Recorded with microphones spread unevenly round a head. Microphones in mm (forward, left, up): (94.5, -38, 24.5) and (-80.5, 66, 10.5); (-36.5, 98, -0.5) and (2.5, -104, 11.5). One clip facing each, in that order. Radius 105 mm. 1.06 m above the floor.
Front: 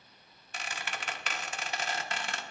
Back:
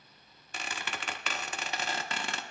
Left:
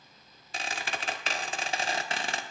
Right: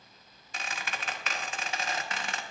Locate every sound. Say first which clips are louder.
0.5 s a squeak: back 1 dB, left 3 dB; 160° left, 0.9 m